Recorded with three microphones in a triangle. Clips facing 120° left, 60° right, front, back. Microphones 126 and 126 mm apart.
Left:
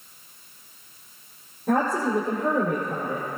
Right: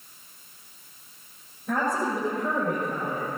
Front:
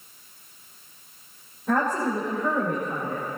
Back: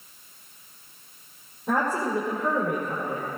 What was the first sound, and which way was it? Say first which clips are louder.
A woman speaking: left 4 dB, front 1 dB; 105° left.